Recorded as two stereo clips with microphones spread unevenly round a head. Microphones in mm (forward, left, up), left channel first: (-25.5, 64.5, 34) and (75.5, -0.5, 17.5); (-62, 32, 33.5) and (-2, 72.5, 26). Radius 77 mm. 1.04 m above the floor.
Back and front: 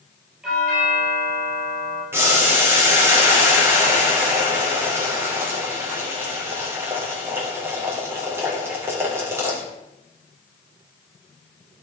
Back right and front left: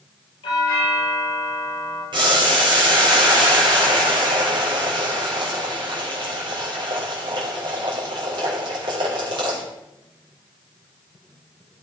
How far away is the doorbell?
About 7 m.